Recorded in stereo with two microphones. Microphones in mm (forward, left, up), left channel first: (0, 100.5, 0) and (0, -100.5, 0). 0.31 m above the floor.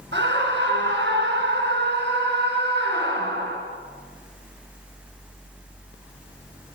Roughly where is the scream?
Right.